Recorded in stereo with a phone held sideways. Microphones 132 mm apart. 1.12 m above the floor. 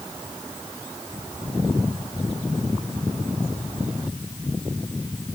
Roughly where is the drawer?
No drawer in this recording.